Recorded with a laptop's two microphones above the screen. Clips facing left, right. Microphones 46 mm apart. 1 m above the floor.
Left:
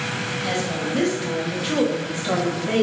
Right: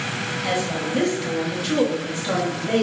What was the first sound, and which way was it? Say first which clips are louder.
A woman speaking: right 1 dB; 10° right (ahead or behind).